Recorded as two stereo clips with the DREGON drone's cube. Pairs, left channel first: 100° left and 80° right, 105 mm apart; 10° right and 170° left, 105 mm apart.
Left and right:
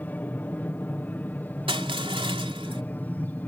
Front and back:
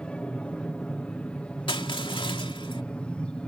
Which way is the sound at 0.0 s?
55° left.